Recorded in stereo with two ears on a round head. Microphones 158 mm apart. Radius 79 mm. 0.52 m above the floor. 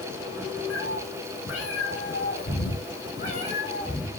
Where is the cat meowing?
85° left, 4 m; by 4.1 s 25° left (ahead or behind), 3.5 m.